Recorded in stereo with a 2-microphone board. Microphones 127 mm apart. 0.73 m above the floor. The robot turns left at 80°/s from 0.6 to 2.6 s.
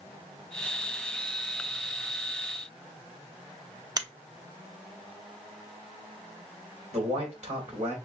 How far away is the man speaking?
About 3 m.